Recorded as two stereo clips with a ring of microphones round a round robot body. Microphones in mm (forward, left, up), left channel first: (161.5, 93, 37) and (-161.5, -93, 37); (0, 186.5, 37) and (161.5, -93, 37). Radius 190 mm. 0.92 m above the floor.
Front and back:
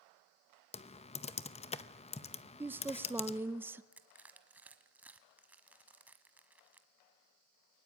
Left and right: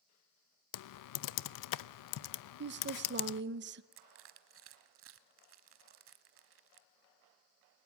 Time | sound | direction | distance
0.7 | typing on a keyboard | 105° left | 0.7 m
2.6 | a woman speaking | 70° right | 0.8 m
3.9 | crushing | 65° right | 0.9 m